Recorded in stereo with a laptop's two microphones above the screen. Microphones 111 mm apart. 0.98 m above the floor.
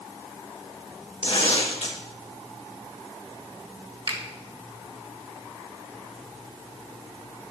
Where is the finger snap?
50° right (ahead or behind), 1.2 m.